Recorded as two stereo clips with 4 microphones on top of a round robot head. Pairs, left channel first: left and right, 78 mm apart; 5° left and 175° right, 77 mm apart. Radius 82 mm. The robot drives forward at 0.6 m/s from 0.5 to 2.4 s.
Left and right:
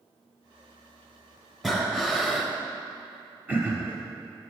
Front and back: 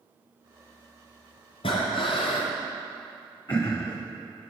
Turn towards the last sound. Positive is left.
turn(degrees=-45)